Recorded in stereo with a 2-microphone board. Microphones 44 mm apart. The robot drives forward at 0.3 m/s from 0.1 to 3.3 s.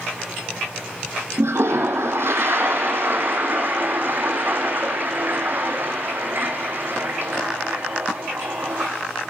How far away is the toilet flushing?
About 0.8 m.